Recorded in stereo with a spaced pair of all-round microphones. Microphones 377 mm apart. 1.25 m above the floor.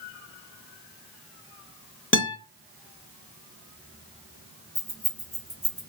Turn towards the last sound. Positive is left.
turn(degrees=15)  # may be behind; listen again after turning